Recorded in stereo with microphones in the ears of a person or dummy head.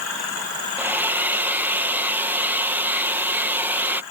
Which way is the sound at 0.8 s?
10° right (ahead or behind).